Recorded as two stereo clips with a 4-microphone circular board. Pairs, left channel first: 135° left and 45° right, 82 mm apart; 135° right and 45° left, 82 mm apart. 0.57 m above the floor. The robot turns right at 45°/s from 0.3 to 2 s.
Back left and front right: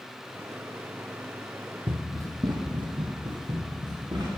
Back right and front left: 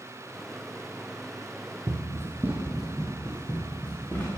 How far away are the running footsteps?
About 1.2 m.